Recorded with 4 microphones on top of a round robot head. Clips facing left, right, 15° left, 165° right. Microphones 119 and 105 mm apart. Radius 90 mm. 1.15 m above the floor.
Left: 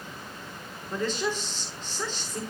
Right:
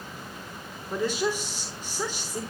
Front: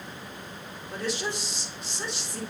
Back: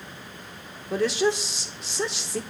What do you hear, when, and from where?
0.9 s a woman speaking: 170° right, 3 m